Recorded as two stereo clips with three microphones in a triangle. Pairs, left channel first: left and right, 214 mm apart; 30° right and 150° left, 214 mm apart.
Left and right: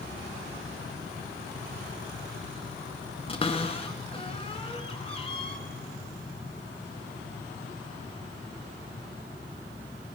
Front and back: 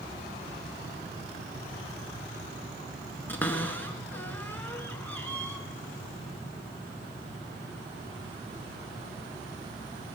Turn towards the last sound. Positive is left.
turn(degrees=45)